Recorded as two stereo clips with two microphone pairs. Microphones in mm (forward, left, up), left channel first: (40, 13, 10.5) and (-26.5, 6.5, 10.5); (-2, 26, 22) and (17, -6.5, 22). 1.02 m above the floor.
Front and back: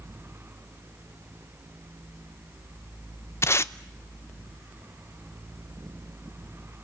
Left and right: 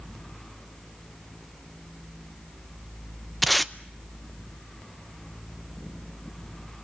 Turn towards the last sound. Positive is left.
turn(degrees=35)